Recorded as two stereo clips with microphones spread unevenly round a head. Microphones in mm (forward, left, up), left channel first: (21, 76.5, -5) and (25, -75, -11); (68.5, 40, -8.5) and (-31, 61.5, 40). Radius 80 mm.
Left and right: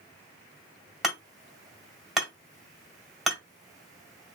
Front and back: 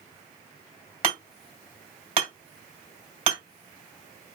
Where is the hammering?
Straight behind, 1.8 m.